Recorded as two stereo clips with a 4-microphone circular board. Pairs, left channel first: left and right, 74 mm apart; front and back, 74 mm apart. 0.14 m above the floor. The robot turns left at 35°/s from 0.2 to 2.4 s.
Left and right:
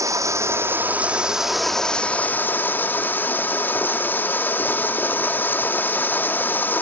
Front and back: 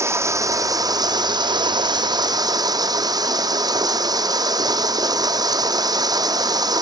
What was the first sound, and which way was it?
Running water, 130° right.